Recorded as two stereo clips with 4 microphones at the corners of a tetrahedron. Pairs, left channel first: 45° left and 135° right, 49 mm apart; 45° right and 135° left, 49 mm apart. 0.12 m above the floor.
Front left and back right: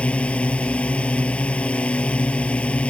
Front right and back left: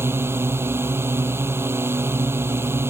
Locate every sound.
0.0 s a drone: 110° left